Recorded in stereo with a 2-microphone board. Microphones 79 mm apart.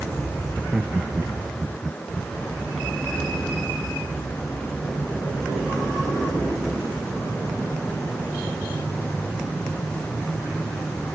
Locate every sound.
0.5 s laughter: 10° right (ahead or behind)